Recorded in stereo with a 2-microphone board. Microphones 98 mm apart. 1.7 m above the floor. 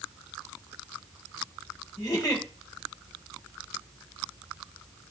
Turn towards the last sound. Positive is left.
turn(degrees=40)  # may be behind; listen again after turning